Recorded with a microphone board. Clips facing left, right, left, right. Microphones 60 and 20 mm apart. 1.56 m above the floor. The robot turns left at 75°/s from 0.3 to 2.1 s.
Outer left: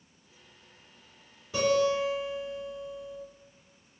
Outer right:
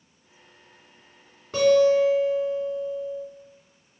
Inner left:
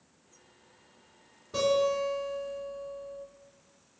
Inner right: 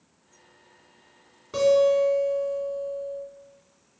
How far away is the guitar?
About 2.0 m.